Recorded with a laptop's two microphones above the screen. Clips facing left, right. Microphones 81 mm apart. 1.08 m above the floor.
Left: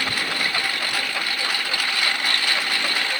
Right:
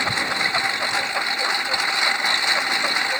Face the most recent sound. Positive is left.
turn(degrees=-20)  # may be behind; listen again after turning